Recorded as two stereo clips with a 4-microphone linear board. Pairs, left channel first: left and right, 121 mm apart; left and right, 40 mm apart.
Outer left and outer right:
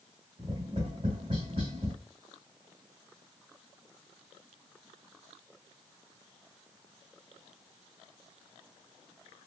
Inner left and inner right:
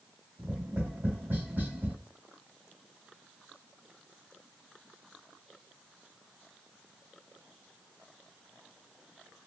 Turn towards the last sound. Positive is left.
turn(degrees=-45)  # may be behind; listen again after turning